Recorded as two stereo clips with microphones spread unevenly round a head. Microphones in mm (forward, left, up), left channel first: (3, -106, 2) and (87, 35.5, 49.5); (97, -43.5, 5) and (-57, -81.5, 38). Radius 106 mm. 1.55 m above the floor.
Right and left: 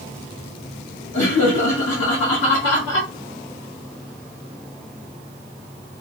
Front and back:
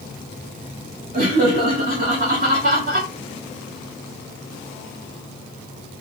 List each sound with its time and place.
1.1 s laughter: 135° right, 1.3 m